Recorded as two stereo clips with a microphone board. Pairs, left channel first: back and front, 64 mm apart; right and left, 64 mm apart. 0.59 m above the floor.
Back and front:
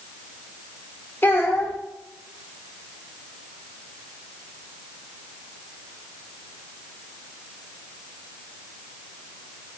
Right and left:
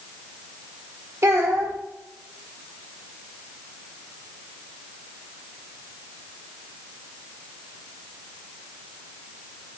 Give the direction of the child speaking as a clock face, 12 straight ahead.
8 o'clock.